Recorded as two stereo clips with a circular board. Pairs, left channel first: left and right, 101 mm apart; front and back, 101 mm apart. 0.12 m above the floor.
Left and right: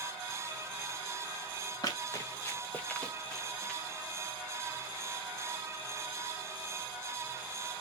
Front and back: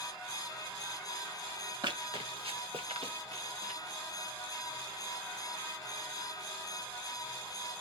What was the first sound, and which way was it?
Running footsteps, 140° left.